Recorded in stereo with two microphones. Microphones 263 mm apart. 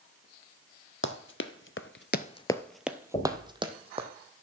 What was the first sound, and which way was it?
Running footsteps, 45° left (ahead or behind).